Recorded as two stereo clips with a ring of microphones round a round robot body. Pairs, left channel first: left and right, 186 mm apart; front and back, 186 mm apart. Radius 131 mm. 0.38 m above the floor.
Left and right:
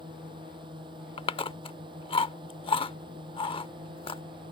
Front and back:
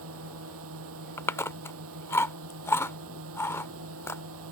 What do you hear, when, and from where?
0.0 s a drone: 165° right
1.2 s chewing: 65° left